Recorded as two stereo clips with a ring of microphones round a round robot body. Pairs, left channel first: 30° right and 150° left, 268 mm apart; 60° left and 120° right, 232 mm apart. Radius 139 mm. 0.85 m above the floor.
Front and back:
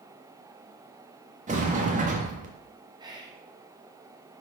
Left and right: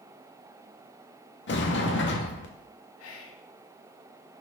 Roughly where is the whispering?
Left.